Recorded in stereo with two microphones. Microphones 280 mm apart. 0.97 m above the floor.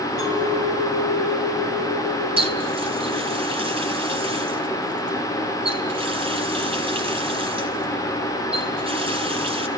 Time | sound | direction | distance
0.2 | a clink | 75° left (ahead or behind) | 7 m
2.4 | a running tap | 20° right (ahead or behind) | 4.5 m